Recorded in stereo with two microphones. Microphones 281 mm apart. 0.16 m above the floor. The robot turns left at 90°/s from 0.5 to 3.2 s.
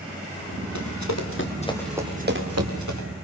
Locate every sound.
0.8 s running footsteps: 80° left, 4.5 m; by 3.1 s 70° right (ahead or behind), 6 m